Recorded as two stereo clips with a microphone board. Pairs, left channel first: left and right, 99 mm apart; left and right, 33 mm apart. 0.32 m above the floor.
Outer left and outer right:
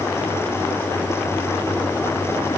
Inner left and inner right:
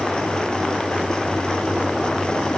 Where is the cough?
I don't hear a cough.